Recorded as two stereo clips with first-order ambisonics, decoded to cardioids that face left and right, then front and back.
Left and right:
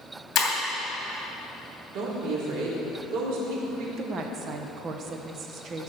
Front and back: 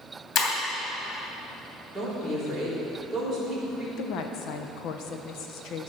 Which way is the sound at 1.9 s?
80° right.